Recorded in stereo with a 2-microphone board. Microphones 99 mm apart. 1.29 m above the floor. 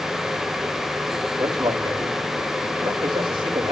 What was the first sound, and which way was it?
A man speaking, 55° right (ahead or behind).